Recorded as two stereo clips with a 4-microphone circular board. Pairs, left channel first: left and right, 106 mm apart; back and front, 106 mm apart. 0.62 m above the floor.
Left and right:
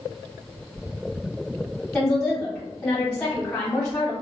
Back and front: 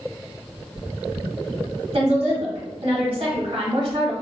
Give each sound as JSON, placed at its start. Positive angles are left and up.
{"t": 1.9, "sound": "a woman speaking", "azimuth_deg": 5, "distance_m": 1.4}